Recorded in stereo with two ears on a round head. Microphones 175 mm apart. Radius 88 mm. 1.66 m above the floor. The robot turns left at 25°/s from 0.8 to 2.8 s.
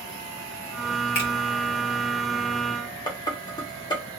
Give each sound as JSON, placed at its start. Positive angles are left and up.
{"t": 1.1, "sound": "a finger snap", "side_deg": 50, "distance_m": 1.5}
{"t": 3.1, "sound": "dishes clattering", "side_deg": 20, "distance_m": 0.8}